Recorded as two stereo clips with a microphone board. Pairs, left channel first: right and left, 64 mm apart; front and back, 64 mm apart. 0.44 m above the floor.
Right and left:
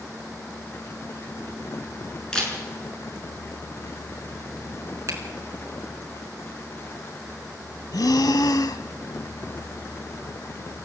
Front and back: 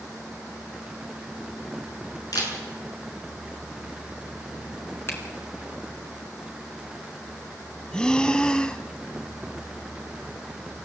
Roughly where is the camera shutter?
Ahead.